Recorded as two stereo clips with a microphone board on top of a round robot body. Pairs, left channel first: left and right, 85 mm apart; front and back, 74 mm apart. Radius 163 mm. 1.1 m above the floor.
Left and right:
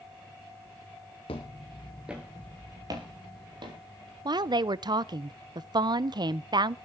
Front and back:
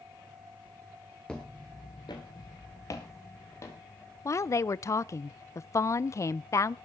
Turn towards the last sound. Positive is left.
turn(degrees=-50)